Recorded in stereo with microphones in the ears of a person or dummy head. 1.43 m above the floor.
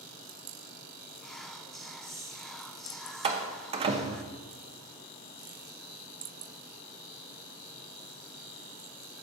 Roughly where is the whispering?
Centre.